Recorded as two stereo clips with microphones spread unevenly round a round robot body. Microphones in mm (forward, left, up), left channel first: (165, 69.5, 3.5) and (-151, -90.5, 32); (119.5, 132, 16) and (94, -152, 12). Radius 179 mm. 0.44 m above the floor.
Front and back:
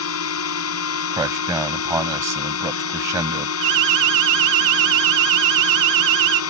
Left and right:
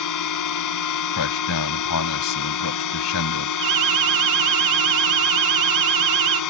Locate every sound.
0.0 s a drone: 75° left
1.1 s a man speaking: 125° left
3.6 s an alarm: 120° right